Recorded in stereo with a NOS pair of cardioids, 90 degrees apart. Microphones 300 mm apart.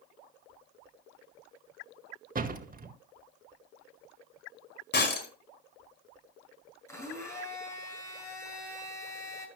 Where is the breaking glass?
35° left, 4.5 m.